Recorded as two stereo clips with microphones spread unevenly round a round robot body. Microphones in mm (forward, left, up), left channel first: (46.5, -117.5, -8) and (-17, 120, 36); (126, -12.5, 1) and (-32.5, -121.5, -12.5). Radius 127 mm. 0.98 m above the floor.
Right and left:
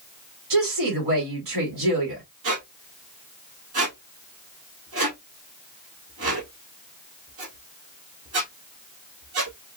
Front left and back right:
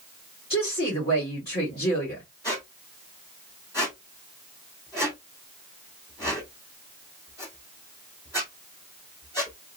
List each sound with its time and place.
0.5 s a woman speaking: 105° left, 3 m
2.4 s a squeak: 105° left, 1.8 m